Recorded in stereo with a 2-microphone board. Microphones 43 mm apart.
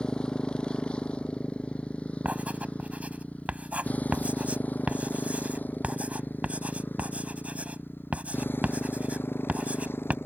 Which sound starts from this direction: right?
Writing, at 2.2 s.